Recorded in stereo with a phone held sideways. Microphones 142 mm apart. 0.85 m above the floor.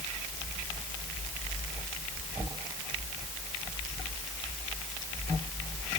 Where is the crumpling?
No crumpling in this recording.